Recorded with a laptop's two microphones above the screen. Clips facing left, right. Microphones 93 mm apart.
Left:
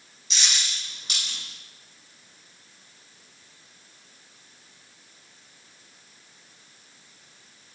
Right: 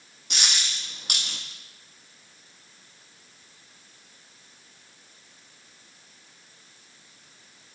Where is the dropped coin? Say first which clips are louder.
Right 1 dB; 65° right (ahead or behind), 1.9 m.